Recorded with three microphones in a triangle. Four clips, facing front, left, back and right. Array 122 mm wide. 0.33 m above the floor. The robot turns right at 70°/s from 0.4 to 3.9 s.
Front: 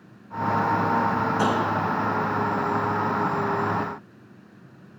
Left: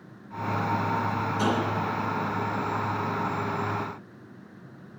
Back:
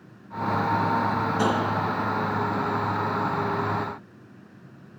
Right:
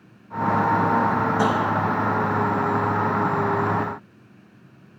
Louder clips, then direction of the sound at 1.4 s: Right 3 dB, even; 90° right.